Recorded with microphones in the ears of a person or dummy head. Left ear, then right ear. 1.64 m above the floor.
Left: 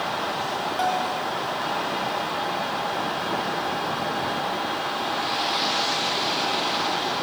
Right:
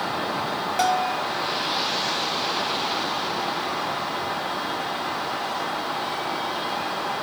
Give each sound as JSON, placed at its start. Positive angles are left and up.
{"t": 0.8, "sound": "a bell", "side_deg": -35, "distance_m": 2.0}